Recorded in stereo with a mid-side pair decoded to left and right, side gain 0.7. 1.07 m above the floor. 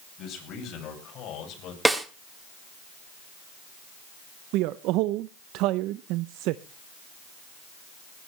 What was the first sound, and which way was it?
A man speaking, 50° left.